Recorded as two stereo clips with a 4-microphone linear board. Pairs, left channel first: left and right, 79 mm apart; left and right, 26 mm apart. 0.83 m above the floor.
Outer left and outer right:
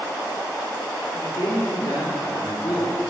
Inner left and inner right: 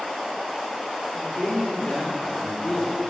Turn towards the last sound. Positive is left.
turn(degrees=45)  # may be behind; listen again after turning